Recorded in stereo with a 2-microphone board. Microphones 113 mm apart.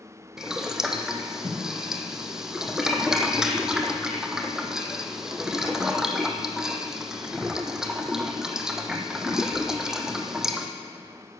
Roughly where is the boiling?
Centre.